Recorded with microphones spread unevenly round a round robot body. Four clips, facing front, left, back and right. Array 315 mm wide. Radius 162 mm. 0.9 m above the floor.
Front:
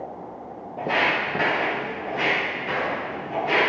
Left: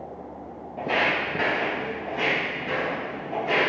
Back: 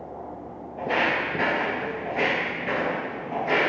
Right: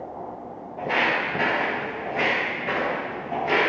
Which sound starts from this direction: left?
Footsteps, at 0.8 s.